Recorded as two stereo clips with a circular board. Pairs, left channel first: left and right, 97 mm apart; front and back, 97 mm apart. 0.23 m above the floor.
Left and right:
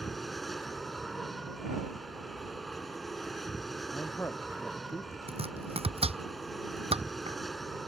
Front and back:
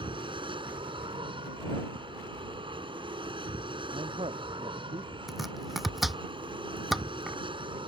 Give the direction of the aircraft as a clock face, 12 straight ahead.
6 o'clock.